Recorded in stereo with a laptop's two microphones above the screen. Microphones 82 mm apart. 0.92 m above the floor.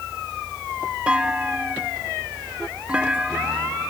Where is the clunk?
15° right (ahead or behind).